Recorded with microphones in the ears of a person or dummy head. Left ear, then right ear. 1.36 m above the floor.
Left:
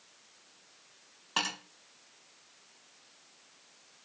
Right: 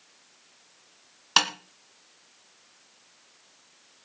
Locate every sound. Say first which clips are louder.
1.4 s tapping: right 10 dB; 50° right (ahead or behind), 2 m